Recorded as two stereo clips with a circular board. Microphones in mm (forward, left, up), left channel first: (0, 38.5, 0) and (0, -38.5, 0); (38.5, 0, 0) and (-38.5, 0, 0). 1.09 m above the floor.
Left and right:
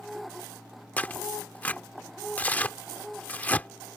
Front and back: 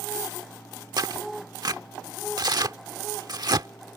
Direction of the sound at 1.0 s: 160° left.